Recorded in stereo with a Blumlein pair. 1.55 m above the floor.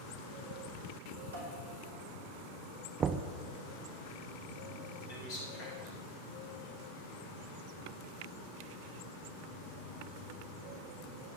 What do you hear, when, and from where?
1.3 s dishes clattering: 65° right, 3 m
3.0 s knocking: 25° right, 0.6 m
5.1 s a man speaking: 50° left, 4 m